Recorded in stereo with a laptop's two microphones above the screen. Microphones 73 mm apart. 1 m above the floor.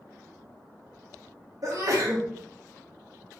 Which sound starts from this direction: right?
A sneeze, at 1.6 s.